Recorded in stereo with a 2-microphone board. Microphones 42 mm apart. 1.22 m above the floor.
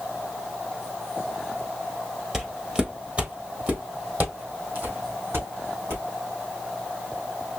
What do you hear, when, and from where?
2.3 s footsteps: 10° right (ahead or behind), 1.2 m; by 6.0 s 55° right (ahead or behind), 3 m